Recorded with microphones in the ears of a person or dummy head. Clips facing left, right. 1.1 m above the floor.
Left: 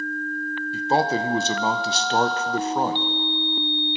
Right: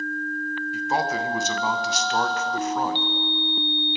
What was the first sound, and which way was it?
A man speaking, 20° left (ahead or behind).